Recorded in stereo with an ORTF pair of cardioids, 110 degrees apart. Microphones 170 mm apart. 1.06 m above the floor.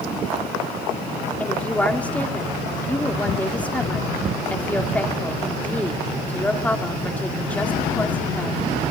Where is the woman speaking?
10° left, 2.5 m.